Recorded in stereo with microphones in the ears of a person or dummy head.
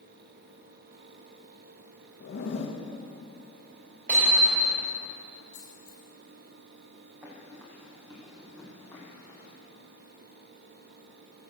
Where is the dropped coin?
60° left (ahead or behind), 5 m.